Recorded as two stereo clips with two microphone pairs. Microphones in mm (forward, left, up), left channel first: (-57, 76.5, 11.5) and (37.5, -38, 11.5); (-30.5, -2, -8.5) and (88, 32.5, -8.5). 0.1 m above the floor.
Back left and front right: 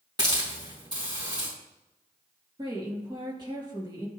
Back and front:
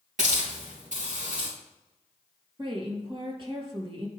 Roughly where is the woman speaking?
Ahead.